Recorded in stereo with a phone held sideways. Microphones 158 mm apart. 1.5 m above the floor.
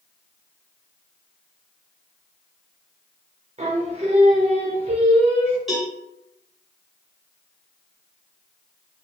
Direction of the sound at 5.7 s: Centre (ahead or behind).